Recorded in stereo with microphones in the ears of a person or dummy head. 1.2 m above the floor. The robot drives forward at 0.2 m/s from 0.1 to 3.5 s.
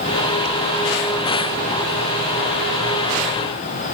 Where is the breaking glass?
I don't hear breaking glass.